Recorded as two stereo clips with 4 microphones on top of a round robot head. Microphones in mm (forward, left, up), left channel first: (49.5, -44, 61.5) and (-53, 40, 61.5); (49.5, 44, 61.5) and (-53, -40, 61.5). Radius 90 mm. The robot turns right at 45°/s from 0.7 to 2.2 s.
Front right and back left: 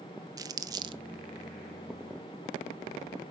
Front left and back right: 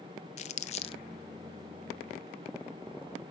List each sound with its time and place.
0.4 s crumpling: 75° left, 0.7 m; by 1.0 s 90° left, 0.7 m